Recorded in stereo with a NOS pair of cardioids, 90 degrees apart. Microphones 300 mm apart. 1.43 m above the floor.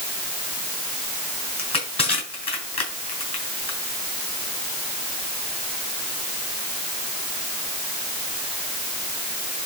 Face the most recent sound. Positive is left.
turn(degrees=20)